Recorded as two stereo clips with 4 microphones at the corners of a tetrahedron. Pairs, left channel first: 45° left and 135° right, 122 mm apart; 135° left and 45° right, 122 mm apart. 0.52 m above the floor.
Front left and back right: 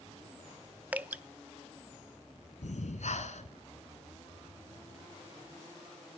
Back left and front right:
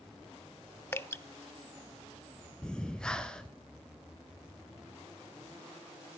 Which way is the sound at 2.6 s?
55° left.